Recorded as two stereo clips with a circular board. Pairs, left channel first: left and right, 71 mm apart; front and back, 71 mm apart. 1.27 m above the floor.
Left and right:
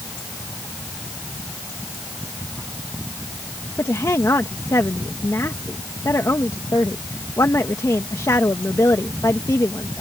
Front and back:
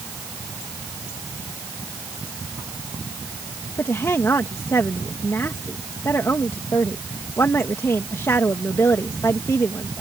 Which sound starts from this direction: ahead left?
A woman speaking, at 3.8 s.